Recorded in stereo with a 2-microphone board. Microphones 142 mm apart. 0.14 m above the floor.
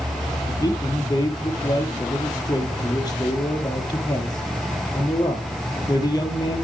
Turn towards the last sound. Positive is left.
turn(degrees=30)  # may be behind; listen again after turning